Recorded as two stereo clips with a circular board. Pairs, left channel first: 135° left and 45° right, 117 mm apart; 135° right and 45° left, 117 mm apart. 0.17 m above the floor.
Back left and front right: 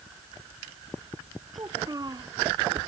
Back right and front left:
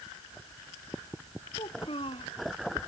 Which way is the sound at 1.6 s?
100° right.